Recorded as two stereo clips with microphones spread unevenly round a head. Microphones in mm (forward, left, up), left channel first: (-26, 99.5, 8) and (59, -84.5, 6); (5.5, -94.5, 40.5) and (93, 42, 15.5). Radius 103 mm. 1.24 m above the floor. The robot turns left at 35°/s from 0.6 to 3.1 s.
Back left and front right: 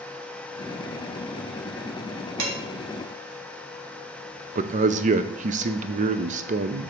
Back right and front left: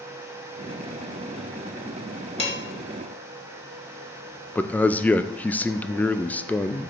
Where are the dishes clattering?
70° right, 2.5 m; by 2.6 s 75° right, 2.5 m.